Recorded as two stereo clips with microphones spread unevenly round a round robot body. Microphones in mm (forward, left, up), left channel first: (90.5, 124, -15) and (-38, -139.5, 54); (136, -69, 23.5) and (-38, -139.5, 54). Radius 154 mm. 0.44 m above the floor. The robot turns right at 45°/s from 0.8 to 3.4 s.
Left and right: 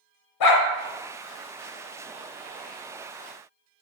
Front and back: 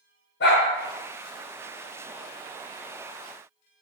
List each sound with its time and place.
0.4 s a dog barking: 65° left, 0.7 m